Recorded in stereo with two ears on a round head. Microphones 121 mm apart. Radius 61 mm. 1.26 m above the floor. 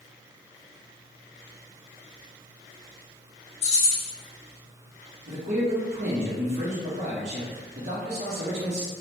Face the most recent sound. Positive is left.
turn(degrees=-50)  # may be behind; listen again after turning